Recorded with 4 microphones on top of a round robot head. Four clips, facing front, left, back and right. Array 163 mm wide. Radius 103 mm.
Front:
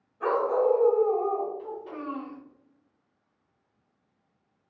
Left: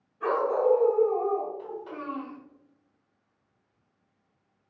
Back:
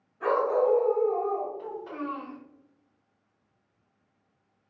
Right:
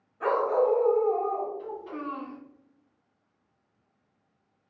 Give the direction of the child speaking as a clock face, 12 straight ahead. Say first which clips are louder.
Right 1 dB, back 1 dB; 7 o'clock.